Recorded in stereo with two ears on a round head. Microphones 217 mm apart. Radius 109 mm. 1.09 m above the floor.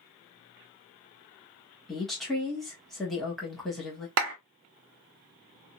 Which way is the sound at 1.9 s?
Centre (ahead or behind).